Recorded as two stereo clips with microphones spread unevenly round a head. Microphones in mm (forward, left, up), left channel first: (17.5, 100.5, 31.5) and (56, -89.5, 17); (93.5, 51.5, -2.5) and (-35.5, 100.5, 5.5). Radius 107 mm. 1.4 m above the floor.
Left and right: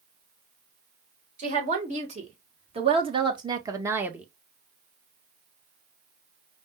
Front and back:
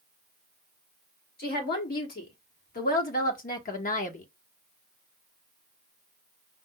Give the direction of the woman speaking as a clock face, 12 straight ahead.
1 o'clock.